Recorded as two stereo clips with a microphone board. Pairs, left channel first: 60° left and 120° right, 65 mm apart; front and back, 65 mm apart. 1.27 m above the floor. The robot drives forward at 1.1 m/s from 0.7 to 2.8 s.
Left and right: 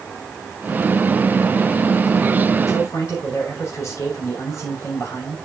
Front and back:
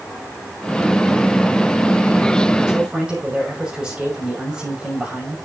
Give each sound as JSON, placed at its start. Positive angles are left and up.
{"t": 2.7, "sound": "a man speaking", "azimuth_deg": 105, "distance_m": 6.5}